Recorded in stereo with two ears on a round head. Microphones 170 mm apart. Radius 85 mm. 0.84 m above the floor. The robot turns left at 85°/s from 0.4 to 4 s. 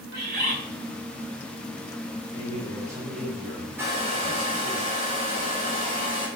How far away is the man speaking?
About 3.5 m.